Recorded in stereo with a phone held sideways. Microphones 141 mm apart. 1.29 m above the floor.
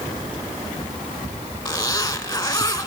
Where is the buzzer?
No buzzer in this recording.